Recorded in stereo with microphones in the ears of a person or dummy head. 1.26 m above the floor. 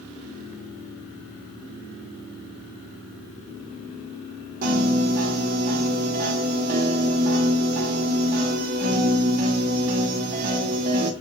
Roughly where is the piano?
Right.